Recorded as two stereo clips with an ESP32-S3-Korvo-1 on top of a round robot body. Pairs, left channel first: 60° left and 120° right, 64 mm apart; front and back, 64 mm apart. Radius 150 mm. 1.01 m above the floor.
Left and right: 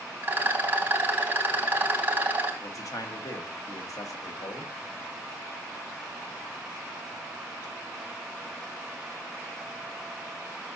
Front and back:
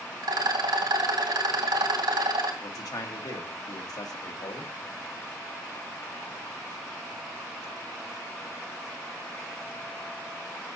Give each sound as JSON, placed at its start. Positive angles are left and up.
{"t": 0.2, "sound": "a rattle", "azimuth_deg": 175, "distance_m": 2.0}
{"t": 2.6, "sound": "a man speaking", "azimuth_deg": 25, "distance_m": 1.5}